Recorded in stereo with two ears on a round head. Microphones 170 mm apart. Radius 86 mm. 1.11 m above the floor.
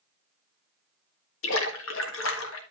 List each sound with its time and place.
1.4 s a splash: 70° left (ahead or behind), 1.7 m